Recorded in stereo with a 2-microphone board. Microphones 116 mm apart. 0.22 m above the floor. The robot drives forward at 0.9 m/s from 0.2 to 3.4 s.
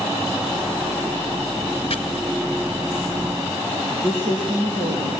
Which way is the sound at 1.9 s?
55° left (ahead or behind).